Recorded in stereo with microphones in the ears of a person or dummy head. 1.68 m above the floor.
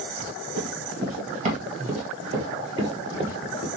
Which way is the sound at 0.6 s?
45° right (ahead or behind).